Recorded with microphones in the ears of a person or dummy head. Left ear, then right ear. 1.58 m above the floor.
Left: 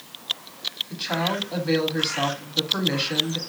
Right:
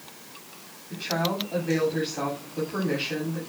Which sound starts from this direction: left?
A woman speaking, at 0.9 s.